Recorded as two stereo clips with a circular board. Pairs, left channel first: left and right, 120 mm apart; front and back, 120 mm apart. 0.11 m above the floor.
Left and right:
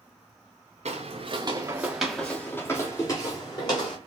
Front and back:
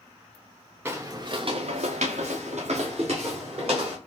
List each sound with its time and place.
0.8 s footsteps: 110° right, 1.0 m; by 4.0 s 140° left, 2.5 m